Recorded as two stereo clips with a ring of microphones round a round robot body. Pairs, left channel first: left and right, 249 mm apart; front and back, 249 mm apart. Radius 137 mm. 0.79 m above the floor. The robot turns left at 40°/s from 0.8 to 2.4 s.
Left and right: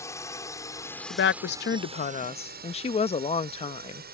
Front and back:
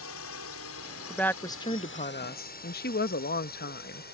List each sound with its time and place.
0.0 s a drone: 15° left; by 4.2 s 45° right
1.1 s a woman speaking: 85° left; by 4.0 s 35° left